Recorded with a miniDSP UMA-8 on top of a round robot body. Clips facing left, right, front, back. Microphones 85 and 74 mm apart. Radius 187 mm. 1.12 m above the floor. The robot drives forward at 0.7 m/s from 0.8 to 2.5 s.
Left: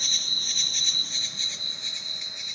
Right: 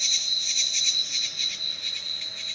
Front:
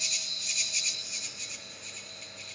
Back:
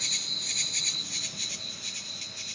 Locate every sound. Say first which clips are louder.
0.0 s an insect: left 1 dB, back 1 dB; 140° left, 0.9 m; by 2.6 s 165° left, 1.9 m